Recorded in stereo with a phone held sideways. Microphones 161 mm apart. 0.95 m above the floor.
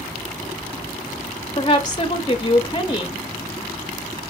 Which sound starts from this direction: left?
A woman speaking, at 1.6 s.